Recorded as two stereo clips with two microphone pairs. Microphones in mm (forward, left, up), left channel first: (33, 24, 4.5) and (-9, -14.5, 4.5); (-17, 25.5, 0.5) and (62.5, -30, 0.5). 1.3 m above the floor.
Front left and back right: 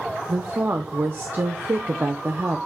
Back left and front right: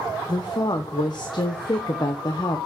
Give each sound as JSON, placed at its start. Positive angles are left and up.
{"t": 0.3, "sound": "a woman speaking", "azimuth_deg": 180, "distance_m": 0.9}